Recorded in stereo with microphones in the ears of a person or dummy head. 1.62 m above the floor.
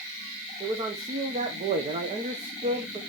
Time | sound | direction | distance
0.6 | a man speaking | 30° right (ahead or behind) | 1.3 m